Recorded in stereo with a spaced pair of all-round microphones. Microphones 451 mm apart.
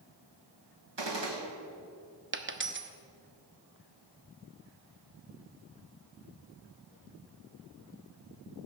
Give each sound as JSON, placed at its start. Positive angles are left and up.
{"t": 1.0, "sound": "a gunshot", "side_deg": -65, "distance_m": 1.8}
{"t": 2.3, "sound": "a dropped coin", "side_deg": -25, "distance_m": 0.8}